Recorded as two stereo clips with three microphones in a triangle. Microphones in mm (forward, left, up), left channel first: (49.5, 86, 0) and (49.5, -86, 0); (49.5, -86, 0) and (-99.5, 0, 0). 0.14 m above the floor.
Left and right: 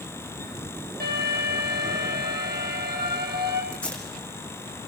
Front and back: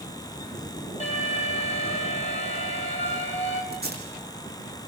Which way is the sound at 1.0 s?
80° right.